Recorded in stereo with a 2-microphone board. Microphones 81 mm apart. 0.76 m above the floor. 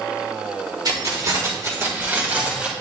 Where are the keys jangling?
60° right (ahead or behind), 1.8 m; by 2.7 s 15° right (ahead or behind), 2 m.